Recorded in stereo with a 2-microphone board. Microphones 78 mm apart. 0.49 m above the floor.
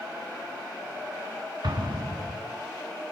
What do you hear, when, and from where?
1.6 s an explosion: 75° right (ahead or behind), 3 m